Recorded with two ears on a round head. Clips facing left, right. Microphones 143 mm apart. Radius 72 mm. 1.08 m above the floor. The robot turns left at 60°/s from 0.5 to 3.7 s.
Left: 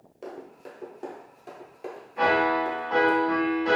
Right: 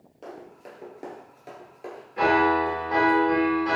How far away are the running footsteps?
About 1.3 m.